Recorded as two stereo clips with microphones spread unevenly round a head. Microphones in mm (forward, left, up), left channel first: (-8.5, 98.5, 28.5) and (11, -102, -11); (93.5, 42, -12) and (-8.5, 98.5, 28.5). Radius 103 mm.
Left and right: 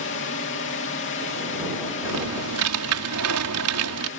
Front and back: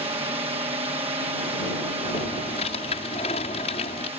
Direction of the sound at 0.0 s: 110° left.